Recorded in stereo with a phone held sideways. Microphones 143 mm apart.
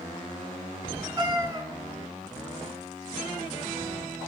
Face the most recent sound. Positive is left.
turn(degrees=-25)  # may be behind; listen again after turning